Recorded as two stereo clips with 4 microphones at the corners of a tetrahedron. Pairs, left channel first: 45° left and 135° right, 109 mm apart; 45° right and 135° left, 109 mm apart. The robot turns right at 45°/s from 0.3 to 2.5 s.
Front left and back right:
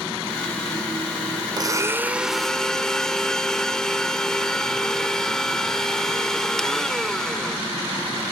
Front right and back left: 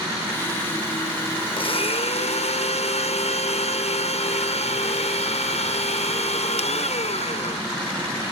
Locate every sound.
1.6 s a blender: 80° right, 0.8 m; by 7.6 s 40° right, 0.8 m